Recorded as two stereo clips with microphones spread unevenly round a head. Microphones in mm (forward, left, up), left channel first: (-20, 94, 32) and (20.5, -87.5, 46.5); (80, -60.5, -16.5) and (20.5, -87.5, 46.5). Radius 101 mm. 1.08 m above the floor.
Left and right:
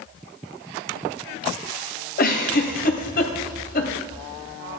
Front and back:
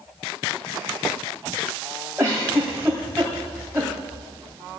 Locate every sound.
2.2 s a giggle: 150° left, 2.5 m